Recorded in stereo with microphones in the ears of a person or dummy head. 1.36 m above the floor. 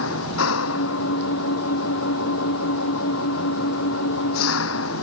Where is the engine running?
80° left.